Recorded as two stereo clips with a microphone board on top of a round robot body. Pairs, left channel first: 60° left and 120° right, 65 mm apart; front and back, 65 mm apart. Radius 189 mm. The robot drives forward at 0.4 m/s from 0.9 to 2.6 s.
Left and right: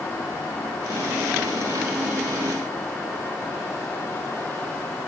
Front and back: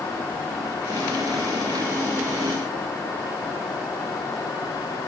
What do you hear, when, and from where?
Only background noise.